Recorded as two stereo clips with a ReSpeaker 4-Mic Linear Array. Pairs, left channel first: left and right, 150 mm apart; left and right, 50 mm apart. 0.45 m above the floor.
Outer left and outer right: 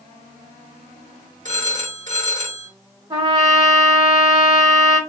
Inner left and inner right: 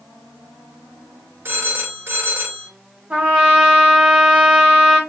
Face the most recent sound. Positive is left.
turn(degrees=-30)  # may be behind; listen again after turning